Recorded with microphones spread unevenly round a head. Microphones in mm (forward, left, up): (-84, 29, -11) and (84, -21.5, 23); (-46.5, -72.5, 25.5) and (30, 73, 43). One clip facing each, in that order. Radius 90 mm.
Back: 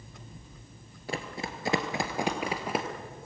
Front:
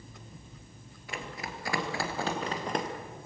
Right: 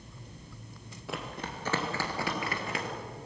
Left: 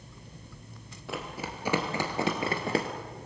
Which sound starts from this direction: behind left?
Running footsteps, at 1.1 s.